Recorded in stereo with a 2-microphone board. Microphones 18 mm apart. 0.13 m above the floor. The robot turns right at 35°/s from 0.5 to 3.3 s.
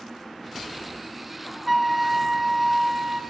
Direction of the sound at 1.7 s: 5° right (ahead or behind).